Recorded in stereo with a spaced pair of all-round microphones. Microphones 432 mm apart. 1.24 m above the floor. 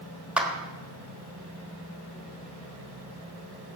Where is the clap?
5° right (ahead or behind), 1.5 m.